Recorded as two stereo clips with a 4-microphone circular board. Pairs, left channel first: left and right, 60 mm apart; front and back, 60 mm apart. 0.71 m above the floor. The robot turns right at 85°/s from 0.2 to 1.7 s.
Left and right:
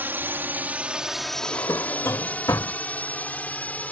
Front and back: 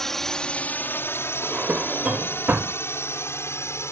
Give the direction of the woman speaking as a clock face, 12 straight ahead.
No woman speaking in this recording.